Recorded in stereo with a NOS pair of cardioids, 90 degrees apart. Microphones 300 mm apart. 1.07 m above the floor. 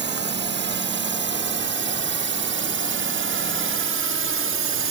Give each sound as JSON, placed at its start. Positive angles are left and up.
{"t": 0.0, "sound": "a drone", "azimuth_deg": -40}